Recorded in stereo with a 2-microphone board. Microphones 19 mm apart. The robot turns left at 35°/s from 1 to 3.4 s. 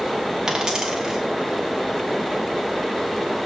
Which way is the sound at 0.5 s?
45° right (ahead or behind).